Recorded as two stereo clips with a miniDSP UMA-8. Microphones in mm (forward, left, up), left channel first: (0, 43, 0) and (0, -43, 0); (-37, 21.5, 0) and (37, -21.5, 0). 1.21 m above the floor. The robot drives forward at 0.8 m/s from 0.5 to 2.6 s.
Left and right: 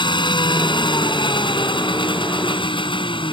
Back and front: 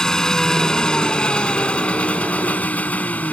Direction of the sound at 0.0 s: 70° left.